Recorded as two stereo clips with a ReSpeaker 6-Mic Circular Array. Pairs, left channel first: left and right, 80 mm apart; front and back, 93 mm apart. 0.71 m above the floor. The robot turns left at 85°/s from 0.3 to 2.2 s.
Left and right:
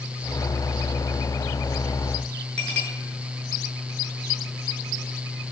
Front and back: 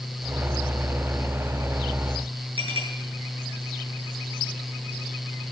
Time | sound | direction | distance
2.6 | a clink | 170° left | 8 m